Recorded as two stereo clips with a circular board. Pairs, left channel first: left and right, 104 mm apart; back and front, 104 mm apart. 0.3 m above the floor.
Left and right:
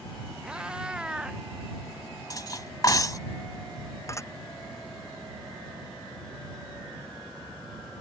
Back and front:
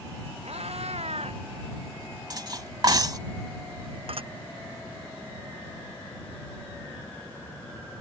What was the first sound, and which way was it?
A cat meowing, 10° right.